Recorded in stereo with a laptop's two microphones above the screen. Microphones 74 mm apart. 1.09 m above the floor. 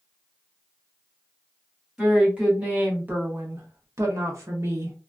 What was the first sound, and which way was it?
A woman speaking, 10° right (ahead or behind).